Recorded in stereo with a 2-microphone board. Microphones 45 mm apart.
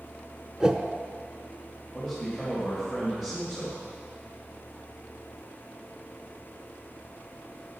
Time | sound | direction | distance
0.6 | a whoosh | 20° right (ahead or behind) | 0.7 m
1.9 | a man speaking | 10° right (ahead or behind) | 2.5 m